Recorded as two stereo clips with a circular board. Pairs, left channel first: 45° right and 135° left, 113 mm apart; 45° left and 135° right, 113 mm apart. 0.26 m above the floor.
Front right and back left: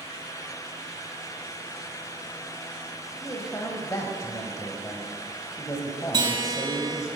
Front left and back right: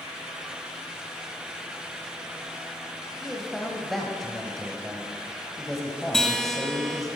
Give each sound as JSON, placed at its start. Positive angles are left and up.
{"t": 3.2, "sound": "a man speaking", "azimuth_deg": -40, "distance_m": 1.3}
{"t": 6.1, "sound": "a guitar", "azimuth_deg": 130, "distance_m": 1.2}